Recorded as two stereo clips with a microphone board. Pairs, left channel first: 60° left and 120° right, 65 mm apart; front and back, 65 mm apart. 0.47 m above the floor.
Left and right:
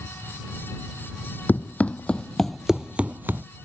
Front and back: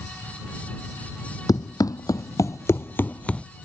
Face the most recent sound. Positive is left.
turn(degrees=-75)